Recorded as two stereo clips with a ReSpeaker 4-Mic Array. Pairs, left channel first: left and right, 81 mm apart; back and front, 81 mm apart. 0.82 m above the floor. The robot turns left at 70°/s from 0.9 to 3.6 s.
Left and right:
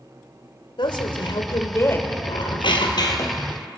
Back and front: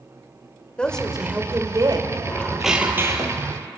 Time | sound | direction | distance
0.8 | a woman speaking | 100° left | 2.5 m
2.3 | a squeak | 110° left | 2.5 m